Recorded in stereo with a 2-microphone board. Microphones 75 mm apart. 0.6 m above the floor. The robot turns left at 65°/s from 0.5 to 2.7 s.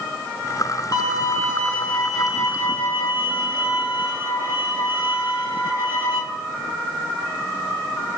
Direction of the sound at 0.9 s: 80° left.